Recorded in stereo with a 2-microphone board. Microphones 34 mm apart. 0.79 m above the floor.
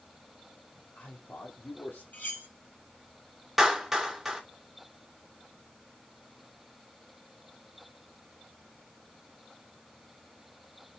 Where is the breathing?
I don't hear breathing.